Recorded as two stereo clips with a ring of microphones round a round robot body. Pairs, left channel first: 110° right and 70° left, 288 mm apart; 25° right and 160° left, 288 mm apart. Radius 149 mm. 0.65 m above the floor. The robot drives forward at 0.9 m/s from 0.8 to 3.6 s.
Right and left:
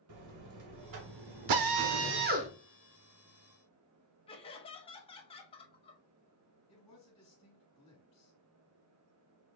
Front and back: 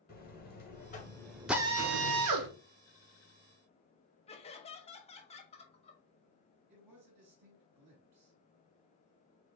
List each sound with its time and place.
0.1 s a buzzer: 35° left, 0.9 m; by 2.5 s 145° left, 1.0 m
1.5 s a drill: 70° left, 0.7 m; by 2.5 s 135° left, 0.9 m
4.3 s laughter: 65° right, 1.2 m
6.7 s a man speaking: 175° left, 3.5 m